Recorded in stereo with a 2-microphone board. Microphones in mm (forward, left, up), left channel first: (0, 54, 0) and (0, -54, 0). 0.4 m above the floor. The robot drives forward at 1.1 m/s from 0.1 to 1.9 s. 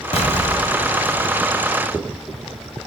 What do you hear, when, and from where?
0.1 s an explosion: 65° left (ahead or behind), 2 m; by 1.4 s 50° left (ahead or behind), 2.5 m